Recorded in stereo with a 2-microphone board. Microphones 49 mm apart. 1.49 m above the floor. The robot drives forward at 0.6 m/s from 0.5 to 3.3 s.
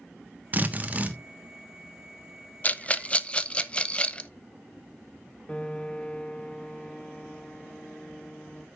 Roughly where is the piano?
Centre.